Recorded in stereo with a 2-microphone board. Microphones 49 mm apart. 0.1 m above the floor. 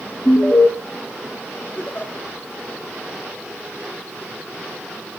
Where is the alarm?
80° left, 8.5 m.